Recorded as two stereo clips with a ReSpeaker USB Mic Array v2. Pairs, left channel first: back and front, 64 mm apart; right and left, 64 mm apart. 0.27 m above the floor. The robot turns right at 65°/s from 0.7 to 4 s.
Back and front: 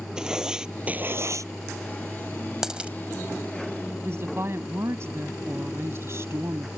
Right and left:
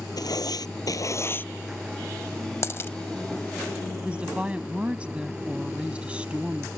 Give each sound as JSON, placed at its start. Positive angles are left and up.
{"t": 0.2, "sound": "writing", "azimuth_deg": -80}
{"t": 2.6, "sound": "a dropped coin", "azimuth_deg": -75}
{"t": 4.0, "sound": "a woman speaking", "azimuth_deg": 25}